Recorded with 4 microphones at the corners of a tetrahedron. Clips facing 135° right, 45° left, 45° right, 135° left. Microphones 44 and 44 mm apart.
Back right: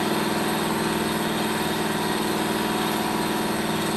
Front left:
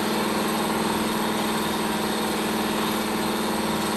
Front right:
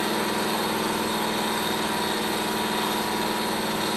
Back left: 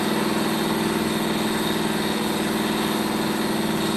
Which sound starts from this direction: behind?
An engine running, at 0.0 s.